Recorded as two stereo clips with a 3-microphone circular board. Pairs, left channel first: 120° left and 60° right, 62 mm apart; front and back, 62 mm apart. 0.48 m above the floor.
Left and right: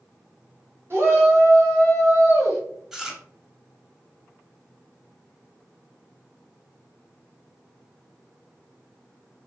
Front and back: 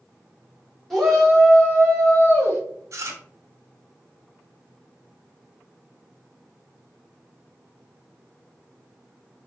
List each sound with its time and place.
0.9 s a shout: 85° right, 1.8 m; by 2.6 s 40° right, 2 m
2.9 s chewing: 145° right, 0.9 m